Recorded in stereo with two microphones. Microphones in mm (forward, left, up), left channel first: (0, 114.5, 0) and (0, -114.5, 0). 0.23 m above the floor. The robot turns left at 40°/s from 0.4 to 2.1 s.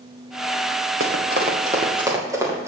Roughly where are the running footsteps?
Right.